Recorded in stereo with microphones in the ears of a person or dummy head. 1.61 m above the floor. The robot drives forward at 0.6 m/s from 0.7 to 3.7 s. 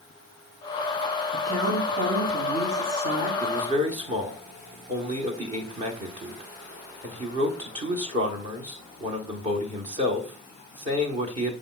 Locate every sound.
1.3 s a woman speaking: 65° right (ahead or behind), 3 m; by 3.3 s 50° right (ahead or behind), 4 m
3.4 s a man speaking: 45° right (ahead or behind), 1.2 m; by 11.5 s 40° right (ahead or behind), 1.3 m